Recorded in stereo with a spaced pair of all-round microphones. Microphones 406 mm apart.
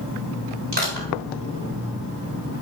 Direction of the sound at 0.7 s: 80° right.